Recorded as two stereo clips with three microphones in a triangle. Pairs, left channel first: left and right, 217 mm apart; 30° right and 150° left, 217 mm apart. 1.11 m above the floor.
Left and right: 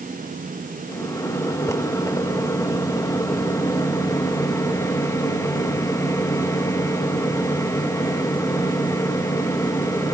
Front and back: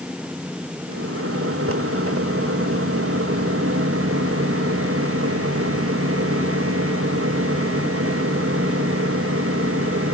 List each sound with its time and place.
0.9 s a microwave: 165° left, 1.3 m